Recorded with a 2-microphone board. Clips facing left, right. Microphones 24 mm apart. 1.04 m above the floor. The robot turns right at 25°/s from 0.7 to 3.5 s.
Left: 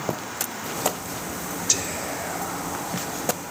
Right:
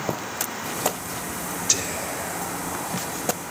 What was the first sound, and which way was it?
Whispering, 5° right (ahead or behind).